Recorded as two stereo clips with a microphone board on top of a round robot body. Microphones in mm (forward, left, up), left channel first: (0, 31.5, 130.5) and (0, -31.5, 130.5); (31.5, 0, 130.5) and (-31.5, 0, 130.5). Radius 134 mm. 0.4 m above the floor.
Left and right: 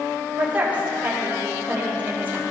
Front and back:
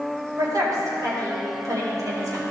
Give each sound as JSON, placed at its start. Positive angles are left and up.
{"t": 0.4, "sound": "a woman speaking", "azimuth_deg": -155, "distance_m": 3.0}